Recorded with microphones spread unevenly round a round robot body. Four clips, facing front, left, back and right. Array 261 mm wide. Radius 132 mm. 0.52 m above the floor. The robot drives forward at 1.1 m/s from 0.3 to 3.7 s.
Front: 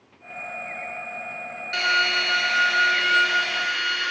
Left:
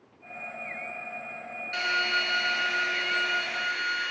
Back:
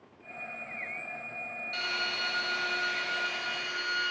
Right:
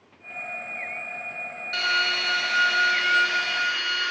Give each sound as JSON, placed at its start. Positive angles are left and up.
{"t": 1.7, "sound": "a drill", "azimuth_deg": -30, "distance_m": 8.0}